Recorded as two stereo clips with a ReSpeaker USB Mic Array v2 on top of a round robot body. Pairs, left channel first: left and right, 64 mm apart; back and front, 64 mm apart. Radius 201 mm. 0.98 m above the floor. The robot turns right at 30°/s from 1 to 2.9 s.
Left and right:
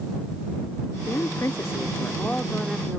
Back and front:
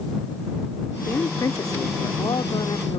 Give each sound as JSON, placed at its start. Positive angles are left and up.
{"t": 1.1, "sound": "a woman speaking", "azimuth_deg": 130}